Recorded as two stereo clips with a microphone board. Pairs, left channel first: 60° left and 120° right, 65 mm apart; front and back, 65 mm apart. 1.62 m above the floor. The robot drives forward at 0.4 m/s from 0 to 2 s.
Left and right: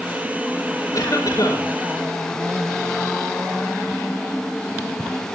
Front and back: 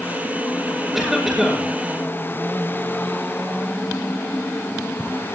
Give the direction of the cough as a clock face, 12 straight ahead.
9 o'clock.